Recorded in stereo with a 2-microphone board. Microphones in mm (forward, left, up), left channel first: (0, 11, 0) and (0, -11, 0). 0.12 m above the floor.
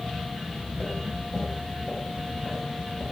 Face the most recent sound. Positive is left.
turn(degrees=50)  # may be behind; listen again after turning